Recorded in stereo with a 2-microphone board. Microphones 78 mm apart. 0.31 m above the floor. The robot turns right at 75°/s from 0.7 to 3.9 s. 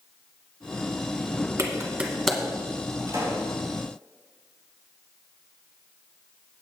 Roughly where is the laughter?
I don't hear laughter.